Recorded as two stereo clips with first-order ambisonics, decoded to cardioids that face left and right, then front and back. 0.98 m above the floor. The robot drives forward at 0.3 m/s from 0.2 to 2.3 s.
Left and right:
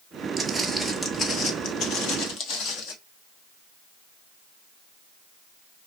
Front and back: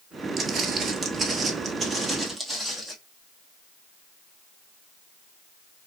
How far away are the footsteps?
About 1.0 m.